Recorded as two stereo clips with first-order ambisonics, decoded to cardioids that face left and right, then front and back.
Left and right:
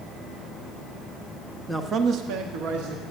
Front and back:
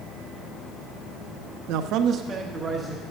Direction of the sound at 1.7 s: Straight behind.